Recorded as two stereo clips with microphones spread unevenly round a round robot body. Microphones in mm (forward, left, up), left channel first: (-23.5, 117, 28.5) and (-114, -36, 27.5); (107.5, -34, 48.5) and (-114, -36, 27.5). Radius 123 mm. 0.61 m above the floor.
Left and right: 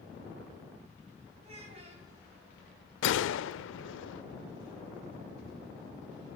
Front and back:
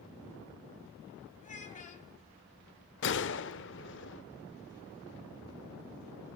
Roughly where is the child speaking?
Ahead right.